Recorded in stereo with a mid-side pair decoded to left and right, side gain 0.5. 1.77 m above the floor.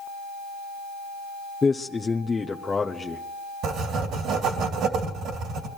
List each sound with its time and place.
1.6 s a man speaking: 25° left, 0.8 m
3.6 s writing: 70° right, 2.5 m